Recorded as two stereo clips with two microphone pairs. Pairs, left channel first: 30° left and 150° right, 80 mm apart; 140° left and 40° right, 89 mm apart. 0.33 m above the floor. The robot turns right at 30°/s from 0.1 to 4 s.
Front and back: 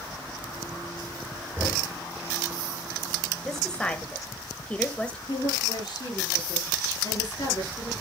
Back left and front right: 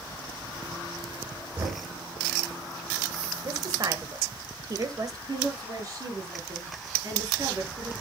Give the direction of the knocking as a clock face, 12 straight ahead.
3 o'clock.